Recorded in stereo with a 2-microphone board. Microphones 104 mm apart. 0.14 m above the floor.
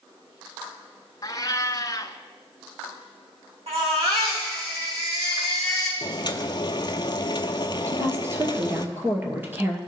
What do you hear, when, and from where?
1.2 s a cat meowing: 40° left (ahead or behind), 0.6 m
3.7 s a baby crying: 80° right, 5.5 m
6.0 s boiling: 45° left (ahead or behind), 0.7 m
7.9 s a woman speaking: 20° right (ahead or behind), 2.5 m